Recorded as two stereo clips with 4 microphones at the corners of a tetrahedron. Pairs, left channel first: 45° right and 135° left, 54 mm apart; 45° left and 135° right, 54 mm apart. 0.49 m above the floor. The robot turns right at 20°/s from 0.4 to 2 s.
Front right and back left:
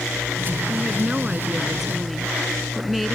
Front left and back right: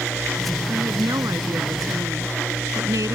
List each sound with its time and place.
0.7 s a woman speaking: 165° right; by 3.2 s 135° right